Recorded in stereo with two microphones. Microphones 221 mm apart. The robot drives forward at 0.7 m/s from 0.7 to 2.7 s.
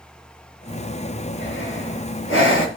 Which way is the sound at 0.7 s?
55° left (ahead or behind).